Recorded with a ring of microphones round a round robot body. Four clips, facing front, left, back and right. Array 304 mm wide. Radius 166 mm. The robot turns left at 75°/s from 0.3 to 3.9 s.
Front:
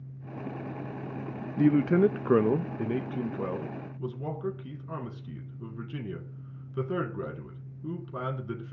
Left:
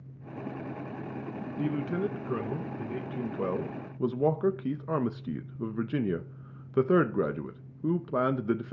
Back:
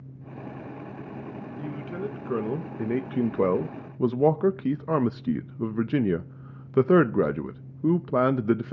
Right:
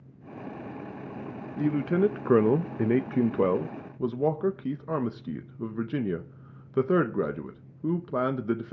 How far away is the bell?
I don't hear a bell.